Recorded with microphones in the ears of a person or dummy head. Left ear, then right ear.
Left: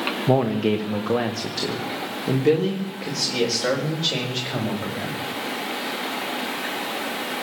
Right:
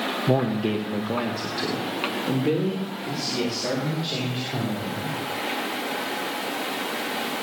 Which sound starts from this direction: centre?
A man speaking, at 0.3 s.